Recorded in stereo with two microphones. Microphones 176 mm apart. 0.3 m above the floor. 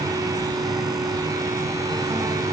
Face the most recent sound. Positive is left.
No sound to turn to.